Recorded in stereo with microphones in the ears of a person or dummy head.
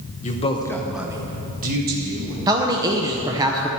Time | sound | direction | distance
0.2 | a man speaking | 40° left (ahead or behind) | 1.1 m
2.5 | a man speaking | 20° right (ahead or behind) | 0.7 m